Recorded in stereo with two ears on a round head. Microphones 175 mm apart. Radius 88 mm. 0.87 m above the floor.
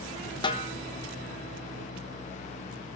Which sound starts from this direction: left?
A snare drum, at 0.4 s.